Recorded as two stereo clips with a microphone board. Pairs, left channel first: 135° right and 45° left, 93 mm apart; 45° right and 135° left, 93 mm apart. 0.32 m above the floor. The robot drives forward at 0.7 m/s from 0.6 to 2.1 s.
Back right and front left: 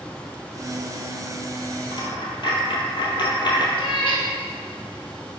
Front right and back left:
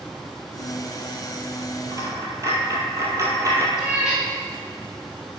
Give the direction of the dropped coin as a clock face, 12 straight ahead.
6 o'clock.